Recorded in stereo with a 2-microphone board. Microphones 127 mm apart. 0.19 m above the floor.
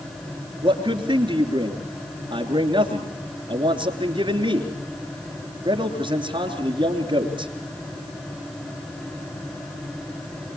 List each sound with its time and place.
0.6 s a man speaking: 40° right (ahead or behind), 3 m